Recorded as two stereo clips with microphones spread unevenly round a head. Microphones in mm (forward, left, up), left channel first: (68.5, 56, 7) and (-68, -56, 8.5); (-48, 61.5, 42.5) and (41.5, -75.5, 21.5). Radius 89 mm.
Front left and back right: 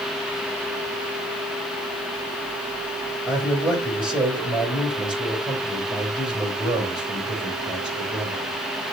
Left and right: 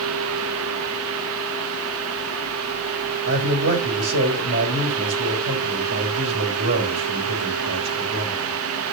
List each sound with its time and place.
3.3 s a man speaking: 55° right, 4 m